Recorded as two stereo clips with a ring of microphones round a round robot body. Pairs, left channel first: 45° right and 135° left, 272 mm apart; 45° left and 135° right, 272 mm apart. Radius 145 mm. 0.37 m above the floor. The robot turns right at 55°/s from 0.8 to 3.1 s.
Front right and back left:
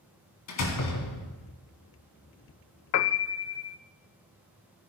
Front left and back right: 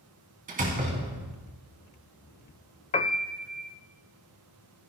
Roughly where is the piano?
Ahead.